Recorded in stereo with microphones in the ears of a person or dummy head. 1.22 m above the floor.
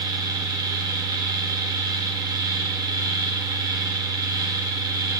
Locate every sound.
0.0 s a fan: 15° right (ahead or behind), 0.9 m